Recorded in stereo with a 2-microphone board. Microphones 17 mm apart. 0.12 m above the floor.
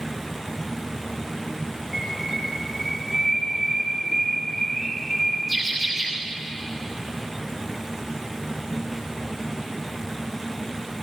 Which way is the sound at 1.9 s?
Centre (ahead or behind).